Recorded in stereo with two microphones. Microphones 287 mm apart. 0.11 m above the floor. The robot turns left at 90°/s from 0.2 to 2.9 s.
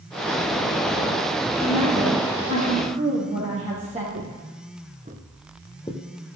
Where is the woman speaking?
35° right, 3 m; by 4.0 s 155° right, 3 m.